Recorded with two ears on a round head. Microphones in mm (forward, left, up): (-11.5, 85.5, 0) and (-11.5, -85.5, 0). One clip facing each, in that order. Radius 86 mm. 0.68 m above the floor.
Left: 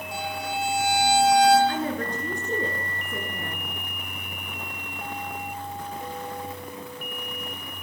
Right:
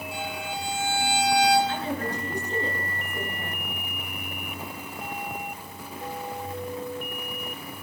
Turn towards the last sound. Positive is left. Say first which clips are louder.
# left 2 dB
turn(degrees=45)  # may be behind; listen again after turning